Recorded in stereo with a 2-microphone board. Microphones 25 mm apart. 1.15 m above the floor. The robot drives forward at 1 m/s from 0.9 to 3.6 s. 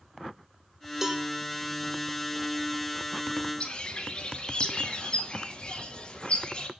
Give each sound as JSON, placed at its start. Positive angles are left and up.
{"t": 1.0, "sound": "a cowbell", "side_deg": -10, "distance_m": 1.3}
{"t": 3.6, "sound": "a bird", "side_deg": 40, "distance_m": 2.0}